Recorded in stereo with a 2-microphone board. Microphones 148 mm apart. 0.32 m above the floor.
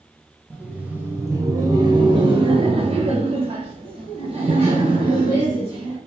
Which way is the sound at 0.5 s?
10° right (ahead or behind).